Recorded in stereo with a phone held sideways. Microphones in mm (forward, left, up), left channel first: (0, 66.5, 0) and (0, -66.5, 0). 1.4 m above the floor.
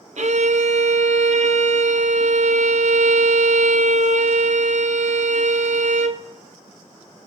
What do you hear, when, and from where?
0.2 s a violin: 65° right (ahead or behind), 0.7 m